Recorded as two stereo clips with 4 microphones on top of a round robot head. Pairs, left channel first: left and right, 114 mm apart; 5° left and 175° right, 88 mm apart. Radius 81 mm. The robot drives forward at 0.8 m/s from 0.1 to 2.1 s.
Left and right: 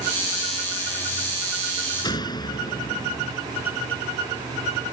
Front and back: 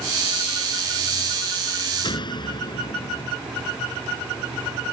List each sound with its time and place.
2.0 s a door slam: 35° left